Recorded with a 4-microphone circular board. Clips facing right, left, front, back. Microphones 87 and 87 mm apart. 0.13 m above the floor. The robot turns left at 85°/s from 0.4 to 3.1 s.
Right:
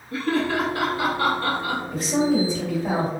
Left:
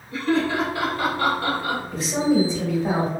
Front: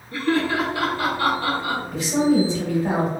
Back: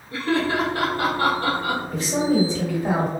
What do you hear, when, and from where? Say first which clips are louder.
0.1 s laughter: left 1 dB, front 1 dB; 110° right, 2.0 m; by 1.8 s 130° left, 2.0 m
1.9 s a woman speaking: left 1 dB, front 3 dB; 170° right, 1.9 m; by 3.1 s 90° left, 1.9 m